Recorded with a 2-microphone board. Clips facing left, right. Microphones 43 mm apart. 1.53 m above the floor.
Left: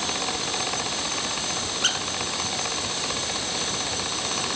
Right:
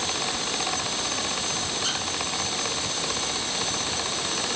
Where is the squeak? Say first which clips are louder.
Left 6 dB; 65° left (ahead or behind), 4 m.